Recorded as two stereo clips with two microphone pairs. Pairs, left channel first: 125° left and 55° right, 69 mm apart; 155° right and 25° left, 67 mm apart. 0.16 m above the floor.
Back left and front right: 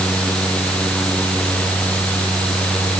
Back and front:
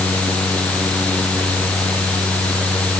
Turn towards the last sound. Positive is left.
No sound to turn to.